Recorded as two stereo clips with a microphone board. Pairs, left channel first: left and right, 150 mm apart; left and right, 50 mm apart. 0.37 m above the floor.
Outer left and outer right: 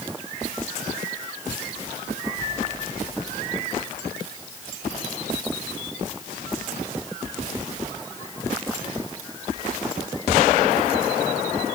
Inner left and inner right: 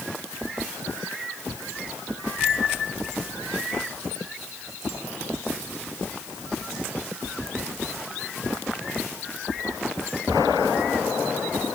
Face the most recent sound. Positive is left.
No sound to turn to.